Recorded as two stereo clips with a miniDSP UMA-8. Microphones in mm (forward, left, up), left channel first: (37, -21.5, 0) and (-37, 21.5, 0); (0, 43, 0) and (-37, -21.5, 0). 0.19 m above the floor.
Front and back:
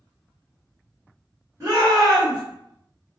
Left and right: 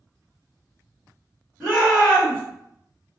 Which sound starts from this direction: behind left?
A shout, at 1.6 s.